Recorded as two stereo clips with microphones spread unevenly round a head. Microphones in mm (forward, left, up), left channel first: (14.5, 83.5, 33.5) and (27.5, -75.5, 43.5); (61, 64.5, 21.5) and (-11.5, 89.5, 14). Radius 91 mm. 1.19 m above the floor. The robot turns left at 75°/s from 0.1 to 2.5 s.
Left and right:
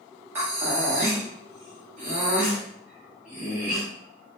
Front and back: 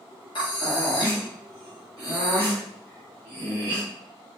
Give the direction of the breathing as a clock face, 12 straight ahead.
12 o'clock.